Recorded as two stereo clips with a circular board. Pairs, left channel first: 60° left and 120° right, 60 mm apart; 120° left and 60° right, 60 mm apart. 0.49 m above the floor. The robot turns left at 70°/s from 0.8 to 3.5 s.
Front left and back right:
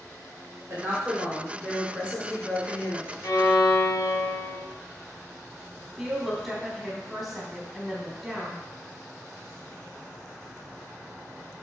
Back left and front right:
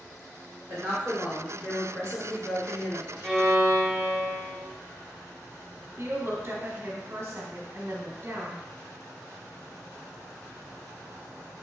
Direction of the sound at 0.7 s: 85° right.